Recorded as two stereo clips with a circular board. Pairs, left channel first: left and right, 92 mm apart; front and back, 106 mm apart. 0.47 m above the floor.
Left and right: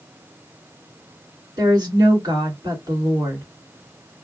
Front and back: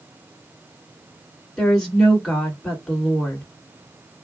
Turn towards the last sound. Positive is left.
turn(degrees=-85)